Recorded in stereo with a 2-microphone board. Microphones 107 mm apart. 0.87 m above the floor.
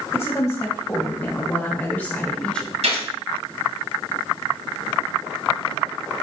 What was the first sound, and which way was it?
A woman speaking, 25° left (ahead or behind).